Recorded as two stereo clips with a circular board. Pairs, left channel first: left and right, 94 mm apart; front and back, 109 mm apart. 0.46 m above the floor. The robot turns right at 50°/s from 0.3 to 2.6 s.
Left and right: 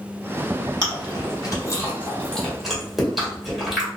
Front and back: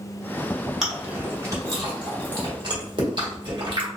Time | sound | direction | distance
0.8 | chewing | 95° left | 1.7 m